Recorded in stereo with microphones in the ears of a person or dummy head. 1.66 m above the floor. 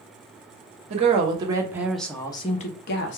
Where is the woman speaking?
35° right (ahead or behind), 0.9 m; by 3.2 s 65° left (ahead or behind), 0.7 m.